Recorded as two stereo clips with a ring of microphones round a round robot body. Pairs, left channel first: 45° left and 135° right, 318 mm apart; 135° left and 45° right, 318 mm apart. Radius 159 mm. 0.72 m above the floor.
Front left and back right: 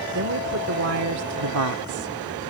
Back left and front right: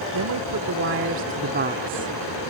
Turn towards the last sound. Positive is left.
turn(degrees=-120)